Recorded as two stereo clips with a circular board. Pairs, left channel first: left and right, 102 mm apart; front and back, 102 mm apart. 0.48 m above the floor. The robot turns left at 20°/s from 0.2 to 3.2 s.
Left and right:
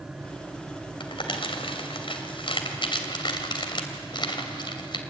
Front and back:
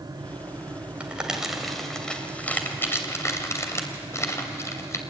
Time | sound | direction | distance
1.0 | crumpling | 105° left | 2.5 m